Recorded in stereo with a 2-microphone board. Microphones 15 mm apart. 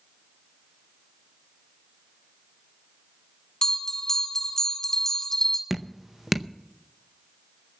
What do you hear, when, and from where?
3.6 s a bell: 45° left (ahead or behind), 1.8 m
5.7 s dripping: 10° right (ahead or behind), 0.6 m